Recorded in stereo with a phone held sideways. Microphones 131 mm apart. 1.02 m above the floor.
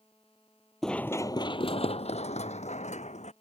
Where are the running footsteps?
Centre (ahead or behind); by 3.3 s 60° left (ahead or behind).